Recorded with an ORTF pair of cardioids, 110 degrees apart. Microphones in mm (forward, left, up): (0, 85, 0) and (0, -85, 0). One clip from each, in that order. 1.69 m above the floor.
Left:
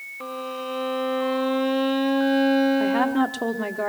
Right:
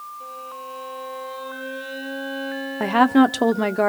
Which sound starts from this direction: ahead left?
A violin, at 0.2 s.